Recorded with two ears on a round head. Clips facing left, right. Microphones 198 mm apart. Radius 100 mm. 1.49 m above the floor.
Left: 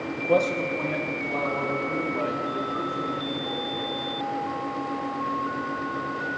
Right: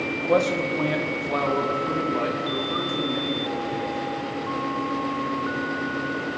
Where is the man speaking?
15° left (ahead or behind), 0.9 m; by 4.0 s 85° right, 5 m.